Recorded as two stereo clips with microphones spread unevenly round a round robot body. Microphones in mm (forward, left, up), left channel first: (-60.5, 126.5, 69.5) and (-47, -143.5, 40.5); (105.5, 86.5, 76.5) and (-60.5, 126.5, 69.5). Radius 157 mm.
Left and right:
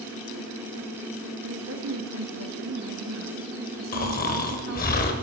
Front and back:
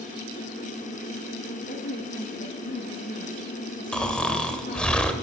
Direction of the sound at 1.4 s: 55° right.